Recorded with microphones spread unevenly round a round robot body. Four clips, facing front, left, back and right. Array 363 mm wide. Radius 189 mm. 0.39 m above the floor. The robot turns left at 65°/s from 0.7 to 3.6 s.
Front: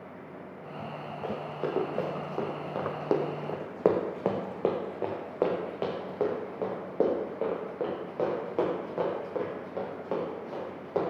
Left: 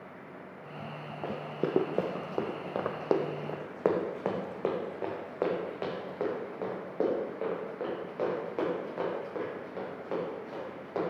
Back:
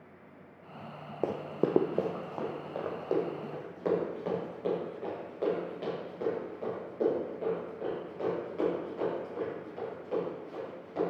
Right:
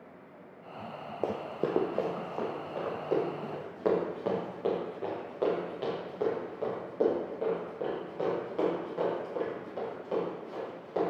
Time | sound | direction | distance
1.2 | running footsteps | 155° right | 0.6 m